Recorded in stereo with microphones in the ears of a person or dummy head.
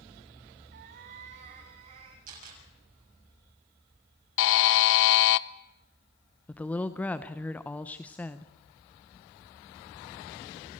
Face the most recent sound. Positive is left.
turn(degrees=5)  # may be behind; listen again after turning